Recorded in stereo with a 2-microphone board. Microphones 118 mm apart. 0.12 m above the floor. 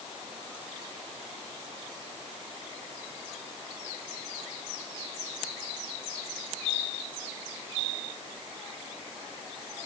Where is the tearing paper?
I don't hear tearing paper.